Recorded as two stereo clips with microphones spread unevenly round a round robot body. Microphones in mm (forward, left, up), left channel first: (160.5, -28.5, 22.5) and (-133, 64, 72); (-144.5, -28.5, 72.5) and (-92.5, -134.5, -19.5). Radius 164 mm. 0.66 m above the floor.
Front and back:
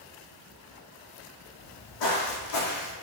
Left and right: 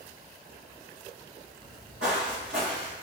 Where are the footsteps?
20° right, 1.6 m; by 2.9 s 40° left, 1.4 m.